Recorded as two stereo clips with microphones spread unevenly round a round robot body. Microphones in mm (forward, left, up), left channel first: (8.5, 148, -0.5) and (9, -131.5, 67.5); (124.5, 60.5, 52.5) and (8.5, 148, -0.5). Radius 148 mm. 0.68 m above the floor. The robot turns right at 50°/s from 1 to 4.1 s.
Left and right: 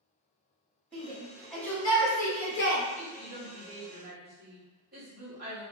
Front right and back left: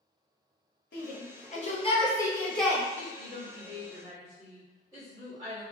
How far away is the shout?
About 1.2 m.